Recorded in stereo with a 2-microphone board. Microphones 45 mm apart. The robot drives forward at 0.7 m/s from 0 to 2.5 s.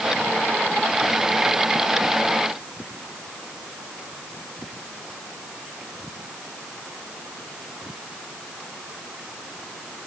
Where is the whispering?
I don't hear whispering.